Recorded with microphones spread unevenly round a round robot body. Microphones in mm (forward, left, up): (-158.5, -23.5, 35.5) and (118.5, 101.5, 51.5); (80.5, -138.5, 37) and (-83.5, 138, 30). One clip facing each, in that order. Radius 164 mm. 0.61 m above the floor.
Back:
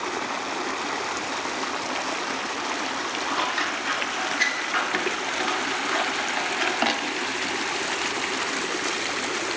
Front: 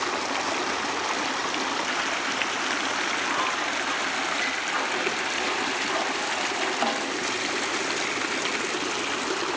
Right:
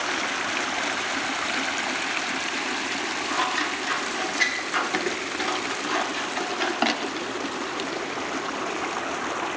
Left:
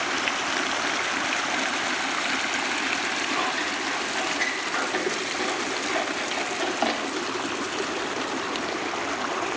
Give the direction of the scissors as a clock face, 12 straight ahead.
4 o'clock.